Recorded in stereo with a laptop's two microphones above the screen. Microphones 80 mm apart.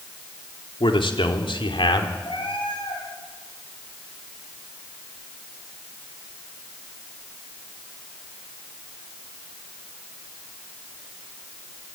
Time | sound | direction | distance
0.8 | a man speaking | 70° left (ahead or behind) | 3 m
2.2 | a cat meowing | 75° left (ahead or behind) | 9.5 m